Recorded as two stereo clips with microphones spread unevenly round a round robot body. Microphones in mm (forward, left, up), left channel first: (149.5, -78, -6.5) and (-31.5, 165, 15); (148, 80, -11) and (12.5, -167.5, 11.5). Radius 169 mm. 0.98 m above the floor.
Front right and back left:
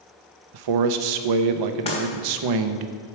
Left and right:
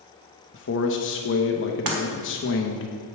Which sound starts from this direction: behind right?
Breaking glass, at 1.9 s.